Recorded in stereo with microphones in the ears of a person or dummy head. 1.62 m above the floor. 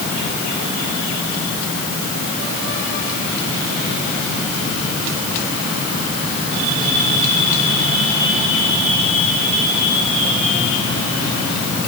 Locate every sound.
Only background noise.